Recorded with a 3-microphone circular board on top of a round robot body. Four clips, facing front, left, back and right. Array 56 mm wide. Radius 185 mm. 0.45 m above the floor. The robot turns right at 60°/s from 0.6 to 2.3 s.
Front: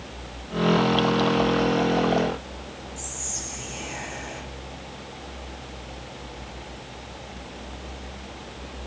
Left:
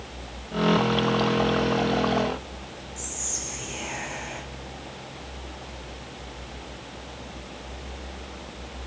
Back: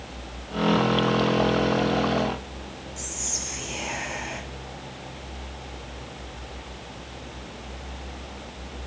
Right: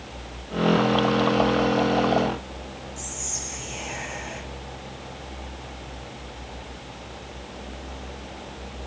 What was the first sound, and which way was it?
Whispering, 175° left.